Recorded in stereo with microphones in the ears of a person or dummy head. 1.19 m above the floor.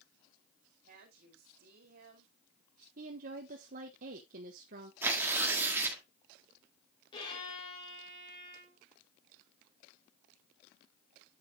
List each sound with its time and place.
0.8 s a woman speaking: 50° right (ahead or behind), 2.5 m
3.0 s a woman speaking: 45° right (ahead or behind), 1.2 m
5.0 s tearing paper: 10° right (ahead or behind), 1.8 m
7.1 s a violin: 30° left (ahead or behind), 3.5 m